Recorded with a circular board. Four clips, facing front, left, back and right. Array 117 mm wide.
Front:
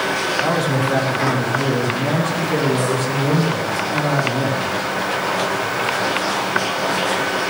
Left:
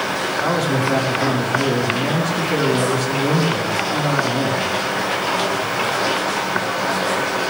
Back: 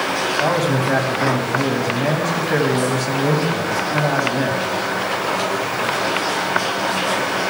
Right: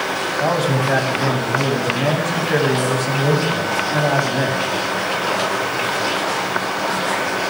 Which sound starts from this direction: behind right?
A man speaking, at 0.4 s.